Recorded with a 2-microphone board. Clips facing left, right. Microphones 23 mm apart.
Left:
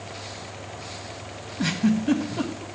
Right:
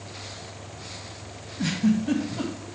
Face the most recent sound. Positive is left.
turn(degrees=15)  # may be behind; listen again after turning